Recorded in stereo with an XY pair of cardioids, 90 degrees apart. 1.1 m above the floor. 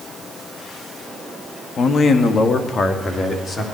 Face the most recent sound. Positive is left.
turn(degrees=40)